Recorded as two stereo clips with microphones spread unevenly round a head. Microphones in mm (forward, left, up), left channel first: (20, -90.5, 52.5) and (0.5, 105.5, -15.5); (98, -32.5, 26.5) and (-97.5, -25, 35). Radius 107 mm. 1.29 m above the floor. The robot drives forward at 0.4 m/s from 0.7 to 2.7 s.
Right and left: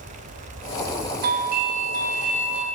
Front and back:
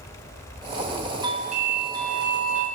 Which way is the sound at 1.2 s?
110° left.